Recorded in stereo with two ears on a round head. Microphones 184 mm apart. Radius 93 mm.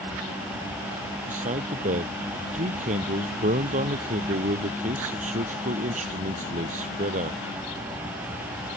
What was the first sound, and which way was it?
A man speaking, 40° right (ahead or behind).